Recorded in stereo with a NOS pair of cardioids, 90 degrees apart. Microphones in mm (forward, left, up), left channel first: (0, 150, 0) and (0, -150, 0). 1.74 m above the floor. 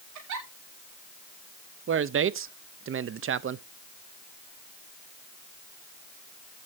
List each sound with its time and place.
0.1 s a giggle: 70° right, 2.5 m
1.9 s a man speaking: 45° right, 0.8 m